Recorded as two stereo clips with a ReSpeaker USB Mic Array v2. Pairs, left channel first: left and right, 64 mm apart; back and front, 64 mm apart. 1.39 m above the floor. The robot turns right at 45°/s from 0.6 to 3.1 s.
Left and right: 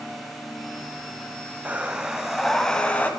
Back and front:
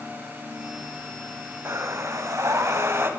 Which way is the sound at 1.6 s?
35° right.